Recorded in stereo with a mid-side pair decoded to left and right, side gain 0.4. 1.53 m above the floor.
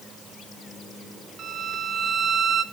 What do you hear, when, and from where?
1.4 s a violin: 55° right, 1.3 m